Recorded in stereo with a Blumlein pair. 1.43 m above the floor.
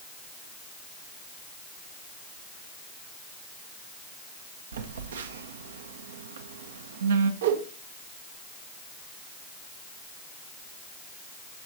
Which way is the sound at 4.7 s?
65° right.